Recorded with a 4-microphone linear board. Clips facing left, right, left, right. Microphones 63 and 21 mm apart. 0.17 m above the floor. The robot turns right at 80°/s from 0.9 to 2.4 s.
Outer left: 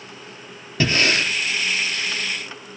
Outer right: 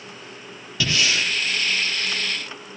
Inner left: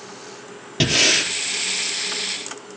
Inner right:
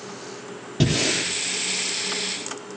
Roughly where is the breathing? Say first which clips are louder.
Outer left 3 dB, inner left 5 dB; ahead left.